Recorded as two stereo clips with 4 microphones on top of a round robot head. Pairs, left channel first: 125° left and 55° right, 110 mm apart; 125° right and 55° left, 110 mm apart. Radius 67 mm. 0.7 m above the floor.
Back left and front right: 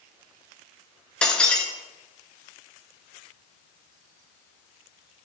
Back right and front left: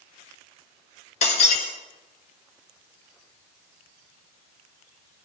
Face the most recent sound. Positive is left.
turn(degrees=-155)